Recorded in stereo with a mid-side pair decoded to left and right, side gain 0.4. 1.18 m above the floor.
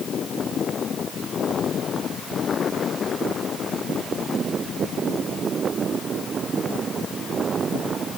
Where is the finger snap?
No finger snap in this recording.